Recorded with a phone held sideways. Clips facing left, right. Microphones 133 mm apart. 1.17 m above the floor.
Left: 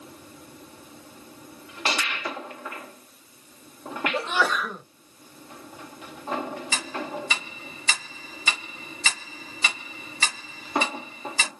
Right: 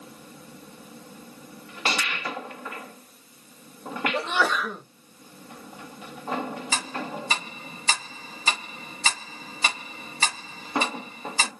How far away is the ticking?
About 1.3 m.